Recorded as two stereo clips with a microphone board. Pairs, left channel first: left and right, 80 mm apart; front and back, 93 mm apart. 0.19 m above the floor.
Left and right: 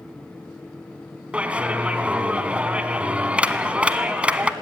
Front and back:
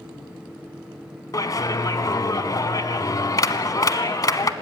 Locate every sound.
1.3 s a clap: 20° right, 1.1 m